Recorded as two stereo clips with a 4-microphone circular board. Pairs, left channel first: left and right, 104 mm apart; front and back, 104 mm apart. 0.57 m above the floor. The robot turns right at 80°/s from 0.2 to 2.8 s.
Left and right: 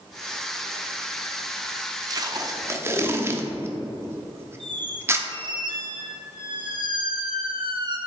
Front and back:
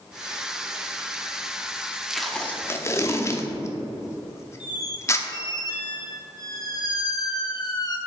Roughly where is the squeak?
Ahead right.